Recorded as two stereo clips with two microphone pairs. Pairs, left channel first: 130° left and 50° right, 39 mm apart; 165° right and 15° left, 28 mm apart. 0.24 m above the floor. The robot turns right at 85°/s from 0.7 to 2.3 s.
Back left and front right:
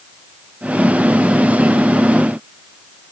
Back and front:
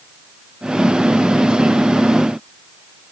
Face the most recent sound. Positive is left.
No sound to turn to.